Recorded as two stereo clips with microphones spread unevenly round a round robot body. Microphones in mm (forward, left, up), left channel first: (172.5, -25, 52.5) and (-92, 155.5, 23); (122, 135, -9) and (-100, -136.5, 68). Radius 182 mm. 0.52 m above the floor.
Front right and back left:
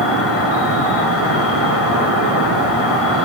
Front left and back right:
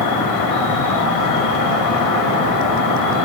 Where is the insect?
15° left, 5 m.